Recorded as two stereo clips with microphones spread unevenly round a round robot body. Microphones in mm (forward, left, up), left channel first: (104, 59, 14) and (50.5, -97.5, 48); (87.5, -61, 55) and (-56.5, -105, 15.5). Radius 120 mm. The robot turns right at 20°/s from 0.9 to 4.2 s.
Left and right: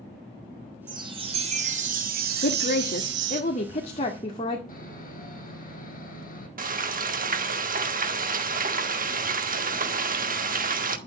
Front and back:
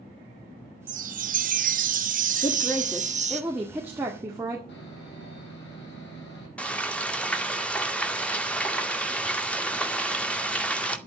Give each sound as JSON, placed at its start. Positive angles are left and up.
{"t": 0.9, "sound": "a chime", "azimuth_deg": 175, "distance_m": 1.6}
{"t": 2.4, "sound": "a woman speaking", "azimuth_deg": 95, "distance_m": 1.8}
{"t": 4.7, "sound": "sawing", "azimuth_deg": 35, "distance_m": 6.0}
{"t": 6.6, "sound": "frying", "azimuth_deg": -70, "distance_m": 2.0}